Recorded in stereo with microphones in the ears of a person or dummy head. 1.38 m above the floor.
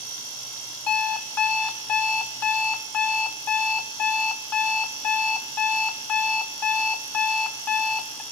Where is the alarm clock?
15° left (ahead or behind), 1.4 m.